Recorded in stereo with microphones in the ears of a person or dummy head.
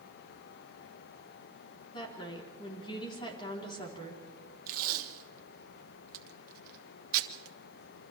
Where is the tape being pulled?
55° right (ahead or behind), 1.4 m.